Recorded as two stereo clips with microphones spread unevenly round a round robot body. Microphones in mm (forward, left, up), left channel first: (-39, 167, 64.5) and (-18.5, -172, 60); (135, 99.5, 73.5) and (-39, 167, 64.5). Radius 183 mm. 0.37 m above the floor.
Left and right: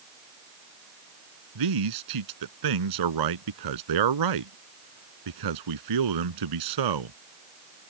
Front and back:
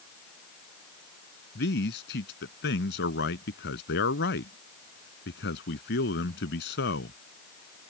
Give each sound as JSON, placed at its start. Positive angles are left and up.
{"t": 1.6, "sound": "a man speaking", "azimuth_deg": -65}